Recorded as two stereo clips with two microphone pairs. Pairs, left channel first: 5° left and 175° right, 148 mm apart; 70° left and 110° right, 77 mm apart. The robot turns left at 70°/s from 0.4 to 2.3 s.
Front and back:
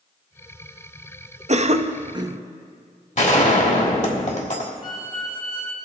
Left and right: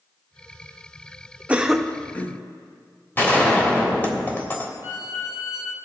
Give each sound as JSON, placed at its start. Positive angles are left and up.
{"t": 1.5, "sound": "a cough", "azimuth_deg": -175, "distance_m": 0.6}
{"t": 3.2, "sound": "a gunshot", "azimuth_deg": 10, "distance_m": 1.4}
{"t": 4.8, "sound": "a violin", "azimuth_deg": 55, "distance_m": 1.2}